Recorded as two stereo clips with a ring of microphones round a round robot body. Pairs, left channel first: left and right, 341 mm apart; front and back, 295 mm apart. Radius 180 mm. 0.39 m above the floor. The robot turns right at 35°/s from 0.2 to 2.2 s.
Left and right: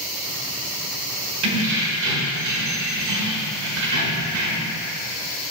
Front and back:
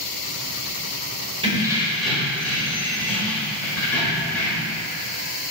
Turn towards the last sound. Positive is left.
turn(degrees=-85)